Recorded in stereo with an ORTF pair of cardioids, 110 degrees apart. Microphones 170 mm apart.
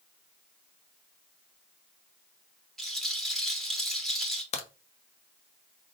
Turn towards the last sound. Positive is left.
turn(degrees=40)